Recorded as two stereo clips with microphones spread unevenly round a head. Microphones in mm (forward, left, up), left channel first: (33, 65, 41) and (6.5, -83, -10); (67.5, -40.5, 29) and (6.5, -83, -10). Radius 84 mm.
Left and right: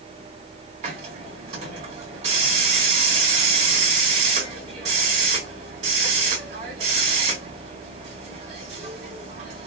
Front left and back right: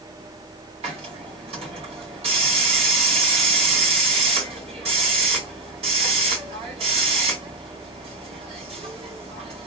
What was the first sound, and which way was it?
A hiss, 160° right.